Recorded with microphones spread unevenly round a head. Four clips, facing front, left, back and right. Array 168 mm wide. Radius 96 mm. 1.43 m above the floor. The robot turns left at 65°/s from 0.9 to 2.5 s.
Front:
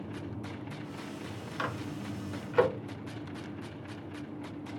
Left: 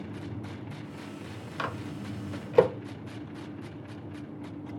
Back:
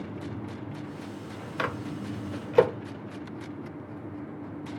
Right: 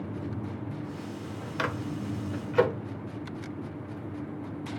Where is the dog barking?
No dog barking in this recording.